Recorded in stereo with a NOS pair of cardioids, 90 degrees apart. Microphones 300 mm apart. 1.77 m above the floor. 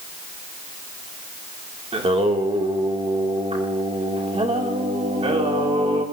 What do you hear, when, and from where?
1.9 s singing: 20° right, 2 m